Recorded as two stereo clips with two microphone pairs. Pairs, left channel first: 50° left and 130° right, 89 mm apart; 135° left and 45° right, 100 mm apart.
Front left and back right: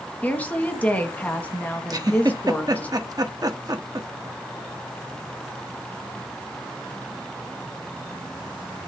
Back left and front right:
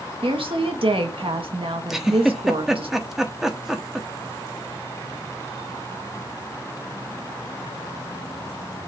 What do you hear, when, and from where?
0.2 s a woman speaking: 20° right, 1.6 m
1.9 s a giggle: 130° right, 1.1 m